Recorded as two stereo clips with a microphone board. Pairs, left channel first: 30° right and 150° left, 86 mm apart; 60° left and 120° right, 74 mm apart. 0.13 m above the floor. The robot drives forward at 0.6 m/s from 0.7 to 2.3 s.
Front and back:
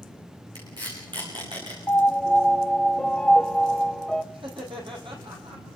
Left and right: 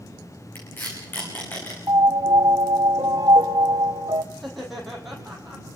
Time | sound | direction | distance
0.6 | tape being pulled | 125° left | 9 m
1.9 | a piano | 90° right | 0.7 m
4.3 | laughter | 150° left | 5.5 m